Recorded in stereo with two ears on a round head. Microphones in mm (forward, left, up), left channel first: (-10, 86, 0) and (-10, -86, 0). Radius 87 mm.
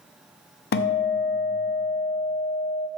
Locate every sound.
0.7 s a guitar: 55° left (ahead or behind), 0.6 m